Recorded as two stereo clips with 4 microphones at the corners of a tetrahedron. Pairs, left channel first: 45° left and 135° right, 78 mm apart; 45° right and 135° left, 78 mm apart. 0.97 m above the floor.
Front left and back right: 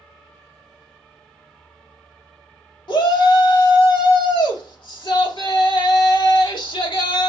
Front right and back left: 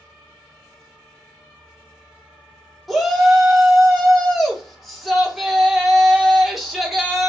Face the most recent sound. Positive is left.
turn(degrees=45)